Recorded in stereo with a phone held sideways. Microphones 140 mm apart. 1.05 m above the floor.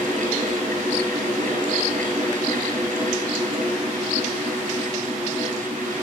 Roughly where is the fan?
Right.